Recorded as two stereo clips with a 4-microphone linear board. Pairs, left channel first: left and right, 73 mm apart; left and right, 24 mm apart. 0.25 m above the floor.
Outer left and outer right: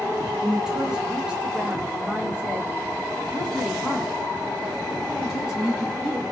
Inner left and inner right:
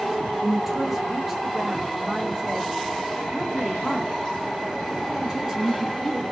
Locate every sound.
0.4 s a woman speaking: 5° right (ahead or behind), 1.3 m; by 6.2 s 10° right (ahead or behind), 2.5 m